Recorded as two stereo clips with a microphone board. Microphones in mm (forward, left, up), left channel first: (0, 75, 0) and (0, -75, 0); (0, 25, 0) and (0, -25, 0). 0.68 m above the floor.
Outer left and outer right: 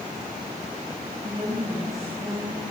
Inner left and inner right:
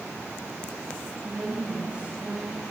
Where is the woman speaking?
20° right (ahead or behind), 5 m.